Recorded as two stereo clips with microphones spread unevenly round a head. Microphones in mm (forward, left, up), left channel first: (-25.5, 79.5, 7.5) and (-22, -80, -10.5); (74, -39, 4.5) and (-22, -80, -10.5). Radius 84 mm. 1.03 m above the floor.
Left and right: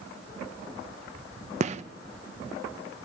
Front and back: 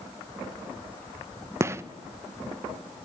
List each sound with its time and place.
1.6 s a gunshot: 110° right, 0.9 m